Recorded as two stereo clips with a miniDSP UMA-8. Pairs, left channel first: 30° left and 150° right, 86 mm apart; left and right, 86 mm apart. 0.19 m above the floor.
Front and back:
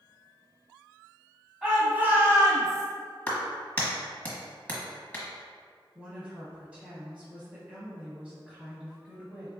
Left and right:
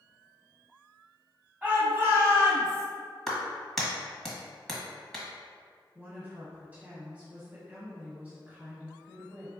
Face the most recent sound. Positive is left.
turn(degrees=-105)